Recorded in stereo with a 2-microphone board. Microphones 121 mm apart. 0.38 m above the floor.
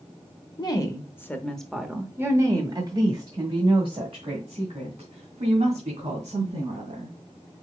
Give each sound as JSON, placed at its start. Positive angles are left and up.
{"t": 0.6, "sound": "a woman speaking", "side_deg": 35, "distance_m": 0.9}